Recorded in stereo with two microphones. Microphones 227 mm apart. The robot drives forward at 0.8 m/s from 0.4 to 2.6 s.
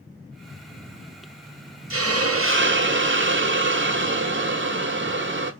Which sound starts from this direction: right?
A hiss, at 1.9 s.